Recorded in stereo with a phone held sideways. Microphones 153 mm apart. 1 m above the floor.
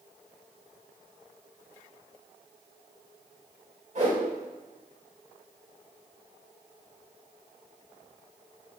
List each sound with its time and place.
4.0 s a whoosh: 50° right (ahead or behind), 3.5 m